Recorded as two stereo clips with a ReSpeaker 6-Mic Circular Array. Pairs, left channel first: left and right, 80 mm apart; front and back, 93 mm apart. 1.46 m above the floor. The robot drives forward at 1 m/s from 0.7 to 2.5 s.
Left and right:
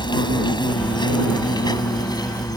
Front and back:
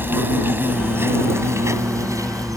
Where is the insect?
110° left; by 2.6 s 125° left.